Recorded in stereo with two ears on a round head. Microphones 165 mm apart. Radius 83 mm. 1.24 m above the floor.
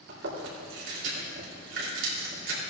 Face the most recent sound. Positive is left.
turn(degrees=-70)  # may be behind; listen again after turning